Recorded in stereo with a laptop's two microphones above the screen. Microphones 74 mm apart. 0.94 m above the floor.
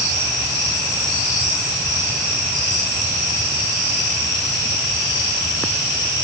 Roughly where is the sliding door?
No sliding door in this recording.